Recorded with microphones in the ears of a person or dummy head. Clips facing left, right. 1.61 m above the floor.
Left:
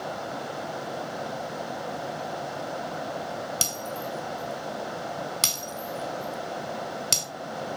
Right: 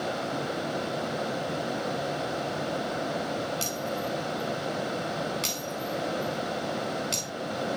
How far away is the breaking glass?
About 4.5 m.